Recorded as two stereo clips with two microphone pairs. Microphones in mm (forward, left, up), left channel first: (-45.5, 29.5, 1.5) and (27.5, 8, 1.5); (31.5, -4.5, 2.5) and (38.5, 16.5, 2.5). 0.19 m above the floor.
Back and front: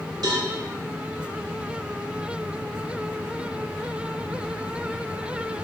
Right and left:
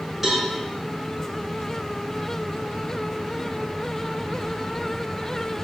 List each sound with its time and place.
0.2 s a cowbell: 5° right, 1.5 m